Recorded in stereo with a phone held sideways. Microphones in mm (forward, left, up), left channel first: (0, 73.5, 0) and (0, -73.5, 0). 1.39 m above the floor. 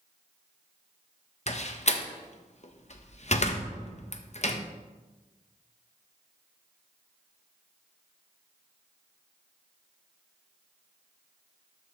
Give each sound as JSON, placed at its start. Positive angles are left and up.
{"t": 1.5, "sound": "a door slam", "side_deg": 50, "distance_m": 0.9}